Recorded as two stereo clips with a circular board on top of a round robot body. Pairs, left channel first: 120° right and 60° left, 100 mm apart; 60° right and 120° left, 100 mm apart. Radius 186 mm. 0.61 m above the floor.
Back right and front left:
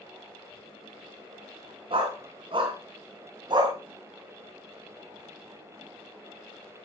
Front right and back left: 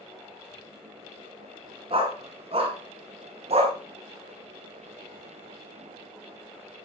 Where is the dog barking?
90° left, 4.5 m; by 3.8 s 105° left, 2.5 m.